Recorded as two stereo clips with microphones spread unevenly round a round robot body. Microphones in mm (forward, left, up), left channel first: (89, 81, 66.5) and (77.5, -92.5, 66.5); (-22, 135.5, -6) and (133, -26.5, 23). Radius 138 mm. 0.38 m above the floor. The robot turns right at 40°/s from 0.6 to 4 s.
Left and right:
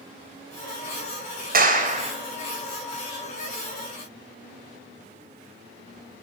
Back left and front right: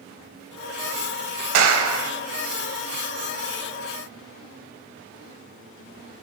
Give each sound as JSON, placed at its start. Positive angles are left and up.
{"t": 1.5, "sound": "a clap", "azimuth_deg": -70, "distance_m": 1.8}